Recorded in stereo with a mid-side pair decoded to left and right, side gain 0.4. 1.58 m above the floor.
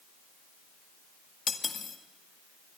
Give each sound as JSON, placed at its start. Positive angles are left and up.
{"t": 1.5, "sound": "cutlery clinking", "azimuth_deg": 45, "distance_m": 2.0}